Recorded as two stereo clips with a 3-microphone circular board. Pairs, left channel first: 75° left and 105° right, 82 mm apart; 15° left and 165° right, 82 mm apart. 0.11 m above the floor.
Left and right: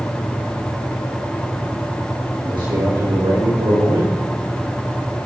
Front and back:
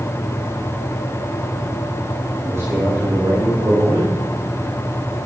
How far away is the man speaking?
About 6 m.